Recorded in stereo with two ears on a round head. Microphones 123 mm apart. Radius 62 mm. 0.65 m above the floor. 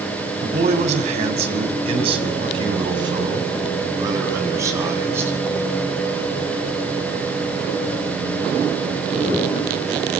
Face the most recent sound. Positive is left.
turn(degrees=-15)  # may be behind; listen again after turning